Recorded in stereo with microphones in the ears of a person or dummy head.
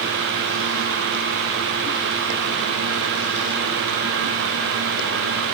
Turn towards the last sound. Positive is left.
No sound to turn to.